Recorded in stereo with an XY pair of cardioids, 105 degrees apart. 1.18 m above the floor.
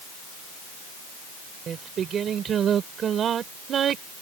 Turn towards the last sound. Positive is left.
turn(degrees=-55)